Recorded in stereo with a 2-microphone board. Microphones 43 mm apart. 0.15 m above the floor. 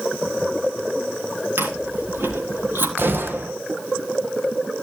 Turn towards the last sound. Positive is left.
turn(degrees=-55)  # may be behind; listen again after turning